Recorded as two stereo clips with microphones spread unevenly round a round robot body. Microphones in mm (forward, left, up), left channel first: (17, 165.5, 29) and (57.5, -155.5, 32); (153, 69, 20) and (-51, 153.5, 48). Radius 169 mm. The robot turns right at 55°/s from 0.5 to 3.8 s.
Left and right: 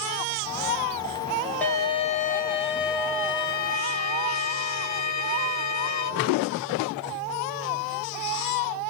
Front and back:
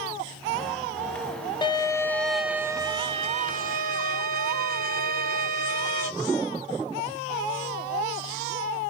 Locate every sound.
1.6 s a violin: 15° left, 0.6 m; by 6.1 s 135° left, 0.6 m